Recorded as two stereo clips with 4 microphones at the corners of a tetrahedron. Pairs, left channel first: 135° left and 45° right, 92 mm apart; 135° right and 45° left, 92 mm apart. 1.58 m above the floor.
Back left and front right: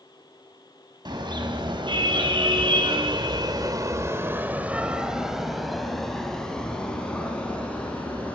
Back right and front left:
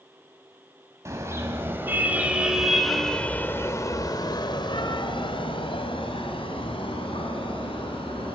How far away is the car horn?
About 4 m.